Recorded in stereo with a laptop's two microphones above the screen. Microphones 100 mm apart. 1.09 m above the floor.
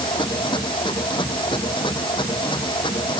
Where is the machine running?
55° left (ahead or behind).